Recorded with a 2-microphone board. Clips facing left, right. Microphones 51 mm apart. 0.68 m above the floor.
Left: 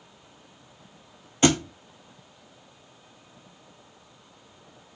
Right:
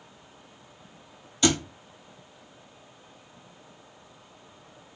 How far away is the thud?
About 1.1 m.